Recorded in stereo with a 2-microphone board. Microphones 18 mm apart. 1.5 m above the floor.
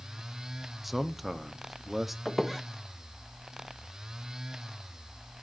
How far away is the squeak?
About 1.2 m.